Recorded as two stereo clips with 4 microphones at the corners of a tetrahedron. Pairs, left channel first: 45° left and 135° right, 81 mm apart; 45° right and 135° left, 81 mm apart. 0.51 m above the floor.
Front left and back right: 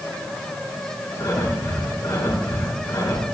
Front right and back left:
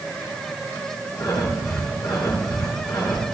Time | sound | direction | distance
1.2 | breathing | 10° right | 4 m